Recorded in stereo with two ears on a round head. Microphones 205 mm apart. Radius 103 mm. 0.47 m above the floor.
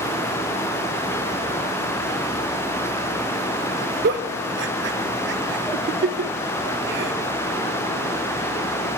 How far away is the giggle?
About 0.5 m.